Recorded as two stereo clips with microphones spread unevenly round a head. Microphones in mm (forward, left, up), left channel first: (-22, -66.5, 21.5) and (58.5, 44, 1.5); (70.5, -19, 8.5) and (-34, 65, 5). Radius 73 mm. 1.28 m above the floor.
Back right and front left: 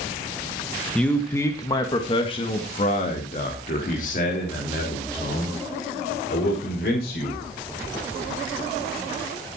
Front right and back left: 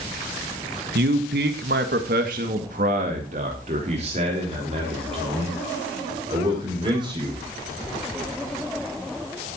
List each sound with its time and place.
0.9 s a man speaking: 150° left, 1.5 m; by 7.4 s 155° right, 5.5 m